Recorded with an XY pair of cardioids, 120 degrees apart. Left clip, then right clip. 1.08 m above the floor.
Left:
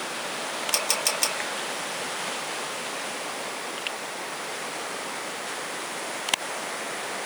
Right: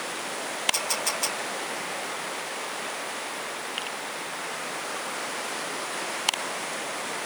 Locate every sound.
0.7 s a camera shutter: 50° left, 2.5 m